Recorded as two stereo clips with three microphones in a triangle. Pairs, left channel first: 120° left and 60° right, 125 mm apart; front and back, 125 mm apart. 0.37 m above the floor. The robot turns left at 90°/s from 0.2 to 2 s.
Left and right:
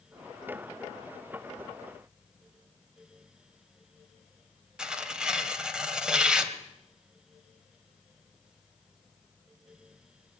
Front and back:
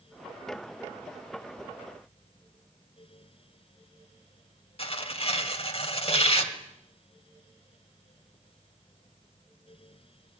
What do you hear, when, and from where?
4.8 s tearing paper: 25° left, 2.5 m